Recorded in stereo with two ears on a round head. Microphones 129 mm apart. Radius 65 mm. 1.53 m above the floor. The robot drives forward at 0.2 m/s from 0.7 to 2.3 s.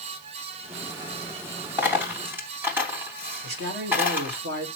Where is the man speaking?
85° right, 2.5 m.